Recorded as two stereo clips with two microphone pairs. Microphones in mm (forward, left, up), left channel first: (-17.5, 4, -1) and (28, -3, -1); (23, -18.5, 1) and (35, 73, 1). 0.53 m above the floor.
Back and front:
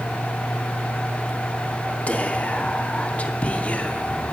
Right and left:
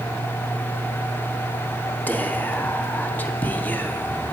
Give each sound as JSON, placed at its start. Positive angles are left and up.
{"t": 2.1, "sound": "whispering", "azimuth_deg": -160, "distance_m": 0.8}